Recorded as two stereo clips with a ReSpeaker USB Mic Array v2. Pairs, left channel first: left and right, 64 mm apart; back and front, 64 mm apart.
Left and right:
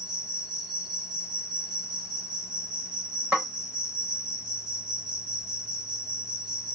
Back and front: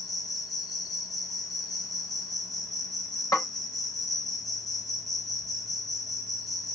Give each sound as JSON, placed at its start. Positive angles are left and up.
{"t": 0.0, "sound": "an insect", "azimuth_deg": -160, "distance_m": 2.0}
{"t": 3.3, "sound": "a snare drum", "azimuth_deg": -150, "distance_m": 2.5}